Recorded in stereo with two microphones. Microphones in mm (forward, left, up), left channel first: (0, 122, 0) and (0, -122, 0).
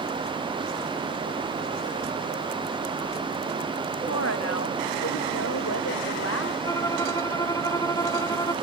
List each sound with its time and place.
4.1 s a woman speaking: 80° left
6.7 s a violin: 15° left (ahead or behind)